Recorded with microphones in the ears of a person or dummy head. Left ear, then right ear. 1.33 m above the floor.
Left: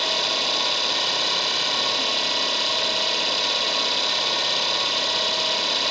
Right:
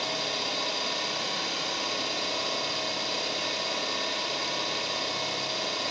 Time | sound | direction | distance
0.0 | an engine running | 35° left (ahead or behind) | 3 m